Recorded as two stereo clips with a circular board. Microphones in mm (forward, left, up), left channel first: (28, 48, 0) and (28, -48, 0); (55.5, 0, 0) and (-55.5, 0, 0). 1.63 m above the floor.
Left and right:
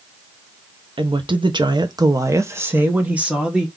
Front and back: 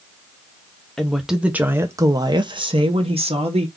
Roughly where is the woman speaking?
Right.